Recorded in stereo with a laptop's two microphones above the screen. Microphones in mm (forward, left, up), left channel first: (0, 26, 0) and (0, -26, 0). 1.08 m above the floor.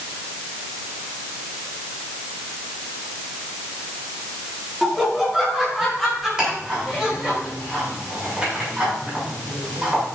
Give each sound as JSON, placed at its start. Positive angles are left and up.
{"t": 4.8, "sound": "laughter", "side_deg": -5, "distance_m": 2.5}
{"t": 6.4, "sound": "ticking", "side_deg": -20, "distance_m": 7.5}